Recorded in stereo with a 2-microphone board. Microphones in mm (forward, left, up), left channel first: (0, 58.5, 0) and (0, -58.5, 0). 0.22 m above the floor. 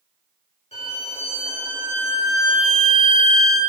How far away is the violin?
About 3 m.